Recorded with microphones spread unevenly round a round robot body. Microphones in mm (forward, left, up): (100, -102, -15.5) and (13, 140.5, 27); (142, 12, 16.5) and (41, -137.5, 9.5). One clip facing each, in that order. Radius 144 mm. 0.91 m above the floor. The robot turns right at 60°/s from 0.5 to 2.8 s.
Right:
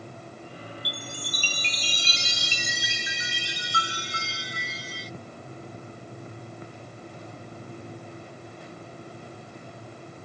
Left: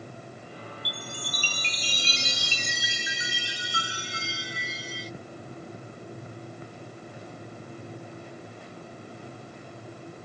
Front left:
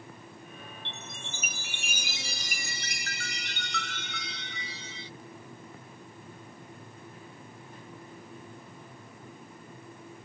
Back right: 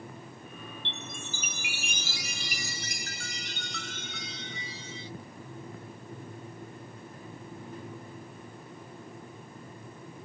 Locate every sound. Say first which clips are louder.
0.8 s a chime: right 1 dB, back right 3 dB; 95° right, 0.5 m; by 5.1 s 25° left, 0.5 m